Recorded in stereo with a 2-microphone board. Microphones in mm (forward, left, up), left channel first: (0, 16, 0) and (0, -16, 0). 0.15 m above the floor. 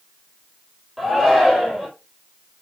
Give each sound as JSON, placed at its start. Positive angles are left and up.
{"t": 1.0, "sound": "a shout", "side_deg": -10, "distance_m": 3.5}